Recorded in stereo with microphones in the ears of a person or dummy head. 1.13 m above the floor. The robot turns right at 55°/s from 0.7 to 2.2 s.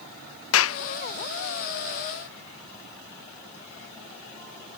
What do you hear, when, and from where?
0.5 s a clap: 65° left (ahead or behind); by 0.8 s 60° left (ahead or behind)